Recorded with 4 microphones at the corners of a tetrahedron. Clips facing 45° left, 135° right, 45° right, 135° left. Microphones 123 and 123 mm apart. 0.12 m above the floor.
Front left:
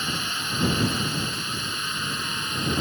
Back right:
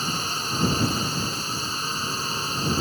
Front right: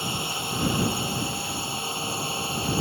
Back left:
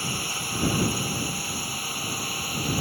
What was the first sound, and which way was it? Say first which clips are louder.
A drone: back right 2 dB, front right 2 dB; 105° right.